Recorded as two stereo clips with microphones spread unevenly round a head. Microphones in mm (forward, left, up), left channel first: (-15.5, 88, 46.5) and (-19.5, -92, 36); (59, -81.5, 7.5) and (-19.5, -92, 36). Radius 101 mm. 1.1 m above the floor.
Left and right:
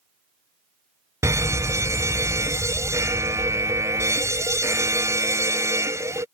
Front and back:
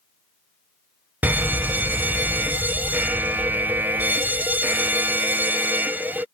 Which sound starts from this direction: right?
A fire alarm, at 1.2 s.